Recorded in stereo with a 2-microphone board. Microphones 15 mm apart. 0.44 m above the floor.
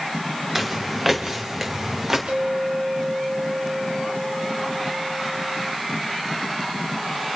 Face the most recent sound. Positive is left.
turn(degrees=-50)  # may be behind; listen again after turning